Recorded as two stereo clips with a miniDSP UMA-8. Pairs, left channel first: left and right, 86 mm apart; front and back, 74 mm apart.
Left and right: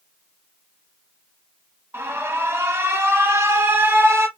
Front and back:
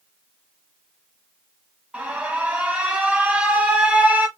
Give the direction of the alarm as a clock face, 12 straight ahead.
4 o'clock.